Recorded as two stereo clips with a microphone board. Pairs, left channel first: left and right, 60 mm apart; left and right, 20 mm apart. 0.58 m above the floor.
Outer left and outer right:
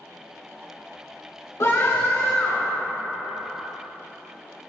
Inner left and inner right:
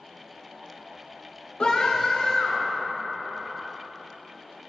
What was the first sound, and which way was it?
A scream, 65° left (ahead or behind).